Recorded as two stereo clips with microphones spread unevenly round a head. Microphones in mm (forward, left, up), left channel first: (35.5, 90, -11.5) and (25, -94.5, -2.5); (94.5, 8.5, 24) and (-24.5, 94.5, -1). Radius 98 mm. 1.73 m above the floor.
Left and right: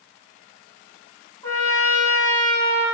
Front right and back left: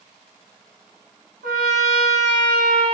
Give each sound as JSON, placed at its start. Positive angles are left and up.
{"t": 1.4, "sound": "a trumpet", "azimuth_deg": 165, "distance_m": 1.2}